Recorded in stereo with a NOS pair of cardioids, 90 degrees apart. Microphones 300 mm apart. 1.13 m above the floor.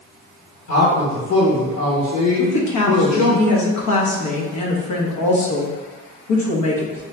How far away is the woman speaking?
About 1.0 m.